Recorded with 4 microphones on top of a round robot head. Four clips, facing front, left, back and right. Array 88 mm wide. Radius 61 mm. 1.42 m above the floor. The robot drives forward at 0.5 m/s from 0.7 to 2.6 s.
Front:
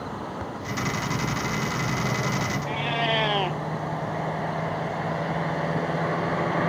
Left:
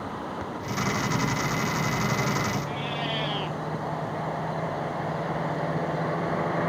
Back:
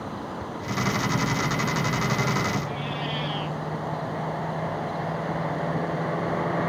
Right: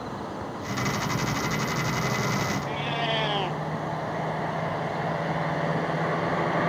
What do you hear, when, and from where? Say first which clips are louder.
2.6 s a cat meowing: right 2 dB, front 5 dB; 15° right